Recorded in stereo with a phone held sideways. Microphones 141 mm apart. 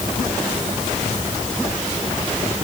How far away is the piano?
I don't hear a piano.